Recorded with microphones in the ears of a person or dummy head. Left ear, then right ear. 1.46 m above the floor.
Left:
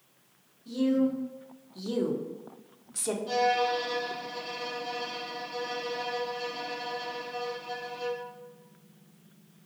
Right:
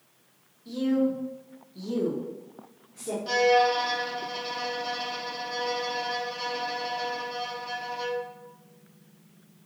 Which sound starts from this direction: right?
A violin, at 3.3 s.